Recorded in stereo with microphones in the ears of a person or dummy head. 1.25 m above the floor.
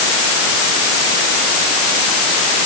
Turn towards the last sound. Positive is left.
No sound to turn to.